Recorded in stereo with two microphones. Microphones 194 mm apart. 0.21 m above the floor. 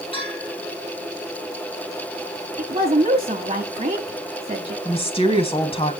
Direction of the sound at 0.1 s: 30° left (ahead or behind).